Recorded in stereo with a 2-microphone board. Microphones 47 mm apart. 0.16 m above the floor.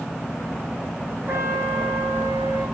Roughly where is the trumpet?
Right.